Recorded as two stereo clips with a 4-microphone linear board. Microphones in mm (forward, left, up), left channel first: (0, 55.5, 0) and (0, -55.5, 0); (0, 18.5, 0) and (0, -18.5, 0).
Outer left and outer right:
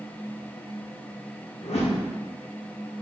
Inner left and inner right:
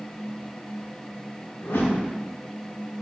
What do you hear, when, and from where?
1.6 s a whoosh: 75° left (ahead or behind), 1.0 m